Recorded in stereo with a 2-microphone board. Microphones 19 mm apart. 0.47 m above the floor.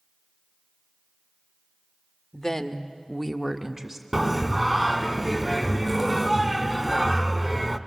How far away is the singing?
About 0.6 m.